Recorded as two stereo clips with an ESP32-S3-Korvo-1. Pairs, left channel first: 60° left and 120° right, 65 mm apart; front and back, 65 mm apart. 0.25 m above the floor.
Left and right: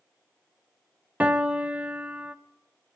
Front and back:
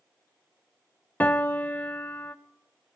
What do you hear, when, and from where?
1.2 s a piano: 60° right, 0.6 m